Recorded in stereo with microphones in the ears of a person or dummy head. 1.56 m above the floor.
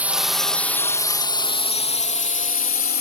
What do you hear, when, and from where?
0.0 s a drone: 5° right (ahead or behind); by 3.0 s 50° left (ahead or behind)